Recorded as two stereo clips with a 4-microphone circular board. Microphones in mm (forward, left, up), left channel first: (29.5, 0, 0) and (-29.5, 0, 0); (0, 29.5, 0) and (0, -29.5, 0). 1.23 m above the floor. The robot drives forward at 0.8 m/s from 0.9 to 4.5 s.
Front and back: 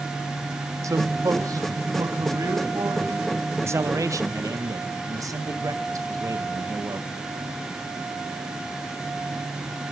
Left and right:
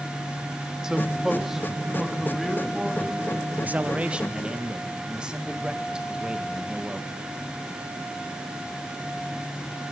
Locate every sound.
0.8 s a man speaking: 170° right, 0.8 m; by 3.4 s 175° right, 2.5 m
3.6 s a man speaking: 145° right, 0.7 m; by 7.1 s 165° right, 1.3 m